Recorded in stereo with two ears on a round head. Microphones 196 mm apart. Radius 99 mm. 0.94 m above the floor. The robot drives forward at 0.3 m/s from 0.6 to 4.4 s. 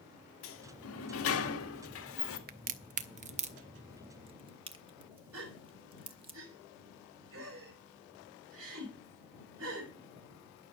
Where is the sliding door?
70° left (ahead or behind), 1.9 m; by 2.4 s 65° left (ahead or behind), 1.9 m.